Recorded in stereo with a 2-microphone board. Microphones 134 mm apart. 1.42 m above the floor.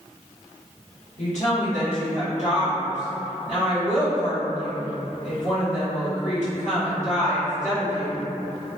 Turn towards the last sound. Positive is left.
turn(degrees=60)  # may be behind; listen again after turning